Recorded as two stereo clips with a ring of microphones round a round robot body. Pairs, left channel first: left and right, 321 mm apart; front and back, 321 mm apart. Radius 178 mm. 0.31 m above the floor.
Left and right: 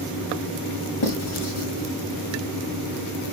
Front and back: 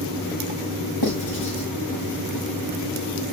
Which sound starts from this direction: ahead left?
Writing, at 1.0 s.